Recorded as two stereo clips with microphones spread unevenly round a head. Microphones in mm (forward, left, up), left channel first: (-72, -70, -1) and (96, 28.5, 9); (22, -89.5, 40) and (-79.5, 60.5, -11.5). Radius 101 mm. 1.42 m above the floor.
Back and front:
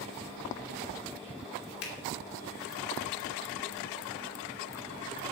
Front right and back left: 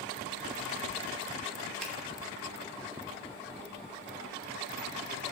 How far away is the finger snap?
About 2.5 m.